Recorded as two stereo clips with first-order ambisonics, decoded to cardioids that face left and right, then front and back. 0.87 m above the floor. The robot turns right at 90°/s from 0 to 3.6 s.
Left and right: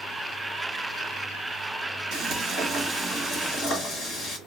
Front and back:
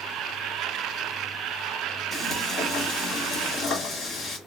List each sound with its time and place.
2.1 s frying: 80° right, 1.4 m; by 4.4 s 55° left, 1.4 m